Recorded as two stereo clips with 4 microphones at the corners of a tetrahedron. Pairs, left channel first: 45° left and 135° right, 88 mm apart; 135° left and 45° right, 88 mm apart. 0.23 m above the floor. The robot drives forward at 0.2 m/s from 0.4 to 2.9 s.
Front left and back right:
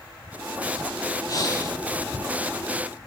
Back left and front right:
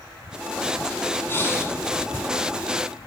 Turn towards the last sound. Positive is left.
turn(degrees=100)